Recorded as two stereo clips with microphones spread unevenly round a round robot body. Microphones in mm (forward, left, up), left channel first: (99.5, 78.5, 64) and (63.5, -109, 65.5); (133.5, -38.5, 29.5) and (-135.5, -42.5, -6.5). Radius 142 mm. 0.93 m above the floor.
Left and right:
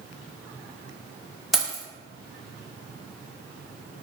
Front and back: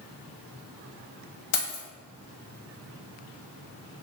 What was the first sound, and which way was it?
Keys jangling, 10° right.